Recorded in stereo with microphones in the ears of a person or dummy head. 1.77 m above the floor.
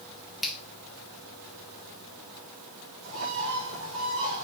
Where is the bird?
80° right, 5 m.